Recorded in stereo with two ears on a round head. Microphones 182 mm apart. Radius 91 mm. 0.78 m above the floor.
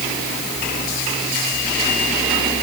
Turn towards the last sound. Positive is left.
No sound to turn to.